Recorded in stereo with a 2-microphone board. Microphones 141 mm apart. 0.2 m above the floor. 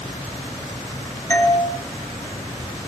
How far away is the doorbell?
About 4 m.